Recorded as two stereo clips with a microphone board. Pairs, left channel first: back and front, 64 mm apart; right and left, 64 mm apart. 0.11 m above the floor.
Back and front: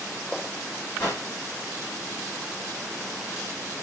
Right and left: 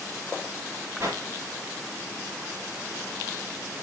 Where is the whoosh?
135° left, 9 m.